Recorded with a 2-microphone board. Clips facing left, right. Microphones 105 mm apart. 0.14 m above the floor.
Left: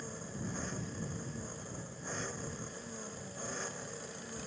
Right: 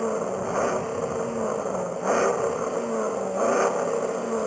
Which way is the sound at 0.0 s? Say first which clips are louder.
Right 18 dB; 70° right (ahead or behind).